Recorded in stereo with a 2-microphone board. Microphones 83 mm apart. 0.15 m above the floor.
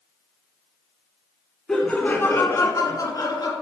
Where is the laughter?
5° left (ahead or behind), 1.4 m; by 3.5 s 50° left (ahead or behind), 2 m.